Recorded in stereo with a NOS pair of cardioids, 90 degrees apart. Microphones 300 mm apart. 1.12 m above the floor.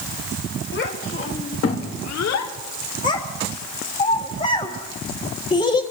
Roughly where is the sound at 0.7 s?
Ahead left.